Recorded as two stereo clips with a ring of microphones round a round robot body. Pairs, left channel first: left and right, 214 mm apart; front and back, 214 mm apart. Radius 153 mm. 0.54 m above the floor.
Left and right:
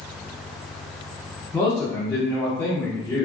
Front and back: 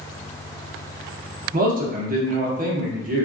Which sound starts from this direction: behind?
A man speaking, at 1.5 s.